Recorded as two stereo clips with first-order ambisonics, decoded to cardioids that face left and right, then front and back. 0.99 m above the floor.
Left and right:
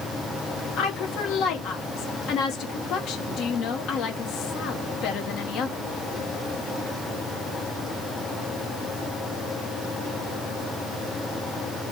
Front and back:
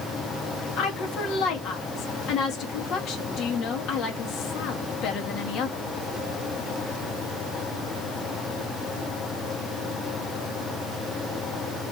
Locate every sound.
0.8 s a woman speaking: 45° left, 1.2 m